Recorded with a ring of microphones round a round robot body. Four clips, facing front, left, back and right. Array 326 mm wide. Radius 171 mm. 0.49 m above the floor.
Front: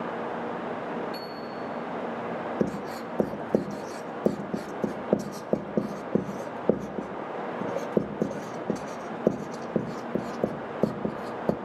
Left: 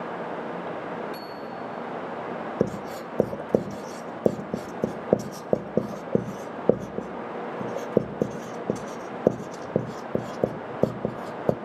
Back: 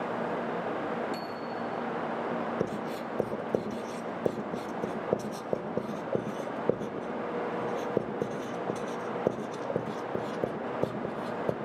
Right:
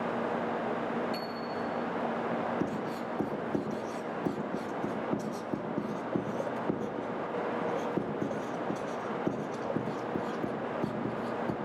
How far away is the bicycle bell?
About 5.5 m.